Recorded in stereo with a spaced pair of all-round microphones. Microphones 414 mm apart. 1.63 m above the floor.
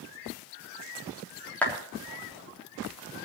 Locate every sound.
1.6 s a clap: 5° left (ahead or behind), 3 m